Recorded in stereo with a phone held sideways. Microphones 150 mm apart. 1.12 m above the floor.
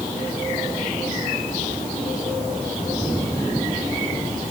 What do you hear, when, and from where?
Only background noise.